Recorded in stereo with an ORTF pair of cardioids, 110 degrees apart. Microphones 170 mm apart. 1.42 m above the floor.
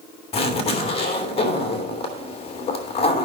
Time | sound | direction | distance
0.3 | a zipper | 35° left | 3 m